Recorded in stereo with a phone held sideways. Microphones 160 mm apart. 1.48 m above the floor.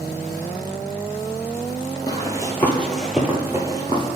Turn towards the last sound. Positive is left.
turn(degrees=-30)  # may be behind; listen again after turning